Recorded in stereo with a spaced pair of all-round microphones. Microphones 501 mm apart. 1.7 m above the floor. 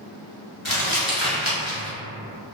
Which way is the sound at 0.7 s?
65° left (ahead or behind).